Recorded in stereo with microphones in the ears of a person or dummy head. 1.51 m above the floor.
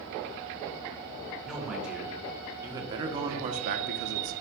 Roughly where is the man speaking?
Centre.